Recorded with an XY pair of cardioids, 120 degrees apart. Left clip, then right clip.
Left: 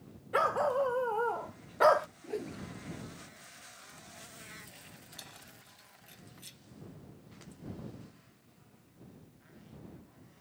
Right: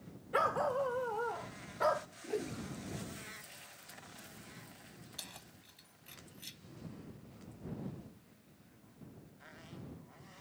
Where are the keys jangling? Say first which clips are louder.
Right 2 dB; 15° right.